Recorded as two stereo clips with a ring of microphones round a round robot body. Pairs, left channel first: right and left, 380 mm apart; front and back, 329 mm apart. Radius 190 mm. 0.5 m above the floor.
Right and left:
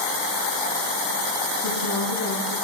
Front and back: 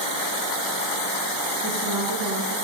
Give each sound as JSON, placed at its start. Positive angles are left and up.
{"t": 1.6, "sound": "a woman speaking", "azimuth_deg": -130, "distance_m": 6.5}